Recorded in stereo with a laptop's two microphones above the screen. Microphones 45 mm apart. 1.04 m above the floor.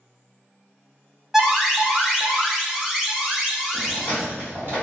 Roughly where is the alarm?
Centre.